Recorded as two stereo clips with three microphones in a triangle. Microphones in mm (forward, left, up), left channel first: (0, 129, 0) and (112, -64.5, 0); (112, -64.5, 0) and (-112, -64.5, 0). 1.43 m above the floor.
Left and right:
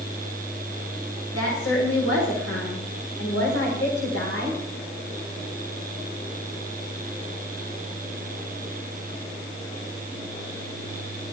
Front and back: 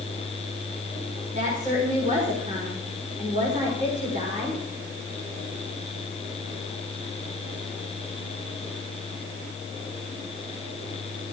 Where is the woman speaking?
125° left, 5.5 m.